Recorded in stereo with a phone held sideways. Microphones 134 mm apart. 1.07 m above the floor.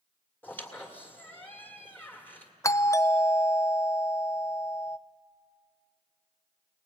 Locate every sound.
0.4 s a squeak: 15° left (ahead or behind), 2 m
2.6 s a doorbell: 20° left (ahead or behind), 0.5 m